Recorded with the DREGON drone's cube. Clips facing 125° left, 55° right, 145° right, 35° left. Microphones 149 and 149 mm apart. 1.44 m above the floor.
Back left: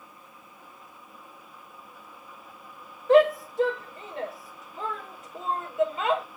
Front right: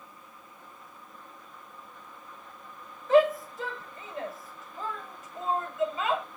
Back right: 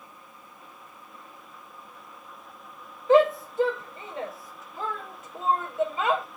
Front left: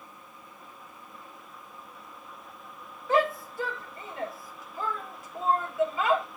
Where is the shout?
145° left, 4.5 m.